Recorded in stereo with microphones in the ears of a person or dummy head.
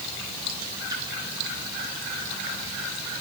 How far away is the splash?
About 10 m.